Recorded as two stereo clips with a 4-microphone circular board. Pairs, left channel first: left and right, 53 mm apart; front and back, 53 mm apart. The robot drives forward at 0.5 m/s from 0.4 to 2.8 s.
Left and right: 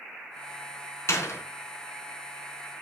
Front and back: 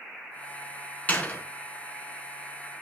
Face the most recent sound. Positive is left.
turn(degrees=75)